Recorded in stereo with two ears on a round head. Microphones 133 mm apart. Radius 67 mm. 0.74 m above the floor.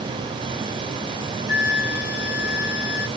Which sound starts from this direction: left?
A flute, at 1.5 s.